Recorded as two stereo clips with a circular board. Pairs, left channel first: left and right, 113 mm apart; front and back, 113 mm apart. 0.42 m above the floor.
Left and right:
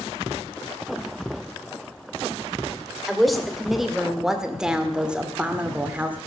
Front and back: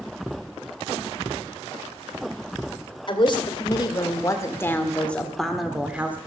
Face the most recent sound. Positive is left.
turn(degrees=-135)